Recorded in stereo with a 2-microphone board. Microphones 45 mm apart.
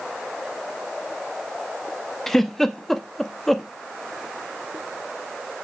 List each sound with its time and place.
2.3 s a giggle: 5° left (ahead or behind), 0.8 m